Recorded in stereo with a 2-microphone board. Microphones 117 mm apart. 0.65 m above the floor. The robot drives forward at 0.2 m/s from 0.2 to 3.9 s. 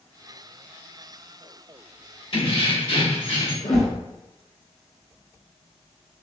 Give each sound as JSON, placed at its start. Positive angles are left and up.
{"t": 2.3, "sound": "keys jangling", "side_deg": 55, "distance_m": 1.2}
{"t": 3.6, "sound": "a whoosh", "side_deg": 75, "distance_m": 0.7}